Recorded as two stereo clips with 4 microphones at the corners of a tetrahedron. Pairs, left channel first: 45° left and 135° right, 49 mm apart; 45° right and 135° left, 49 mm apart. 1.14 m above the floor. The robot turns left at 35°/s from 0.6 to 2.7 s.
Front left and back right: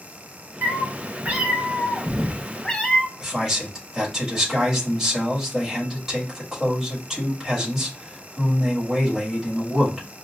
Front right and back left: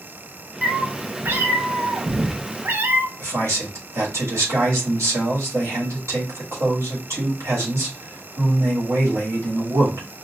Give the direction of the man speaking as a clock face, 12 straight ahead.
7 o'clock.